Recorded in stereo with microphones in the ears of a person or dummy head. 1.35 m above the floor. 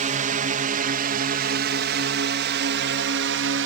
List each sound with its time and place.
0.0 s a drone: 35° right (ahead or behind); by 3.7 s 60° right (ahead or behind)